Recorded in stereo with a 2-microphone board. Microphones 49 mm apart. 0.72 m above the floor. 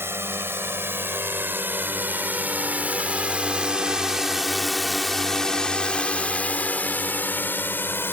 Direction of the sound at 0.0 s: 55° right (ahead or behind).